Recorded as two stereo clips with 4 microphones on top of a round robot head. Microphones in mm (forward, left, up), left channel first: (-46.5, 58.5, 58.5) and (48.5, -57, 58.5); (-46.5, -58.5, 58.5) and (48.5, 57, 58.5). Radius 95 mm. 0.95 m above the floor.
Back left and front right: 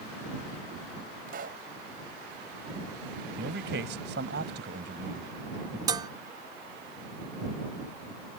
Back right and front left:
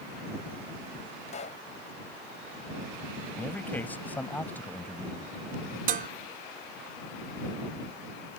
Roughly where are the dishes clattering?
Ahead.